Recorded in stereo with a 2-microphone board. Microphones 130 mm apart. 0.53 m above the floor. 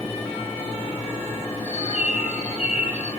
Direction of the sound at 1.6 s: 55° left (ahead or behind).